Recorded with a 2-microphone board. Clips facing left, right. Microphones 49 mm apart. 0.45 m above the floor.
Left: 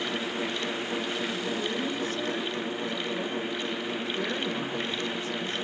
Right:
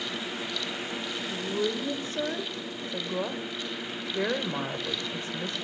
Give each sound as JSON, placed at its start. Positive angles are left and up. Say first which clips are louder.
{"t": 1.3, "sound": "a woman speaking", "louder": "right 1 dB", "side_deg": -40, "distance_m": 1.8}